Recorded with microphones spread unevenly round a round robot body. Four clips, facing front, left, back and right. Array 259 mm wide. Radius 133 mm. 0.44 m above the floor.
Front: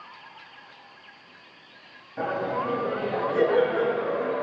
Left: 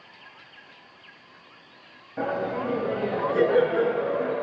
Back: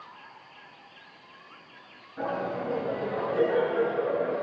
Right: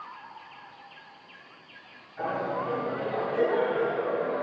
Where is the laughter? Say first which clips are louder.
Left 2 dB, front 3 dB; 65° left, 6 m; by 4.3 s 70° left, 4 m.